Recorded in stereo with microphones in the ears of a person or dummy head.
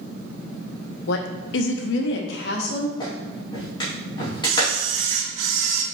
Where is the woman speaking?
65° left (ahead or behind), 0.8 m.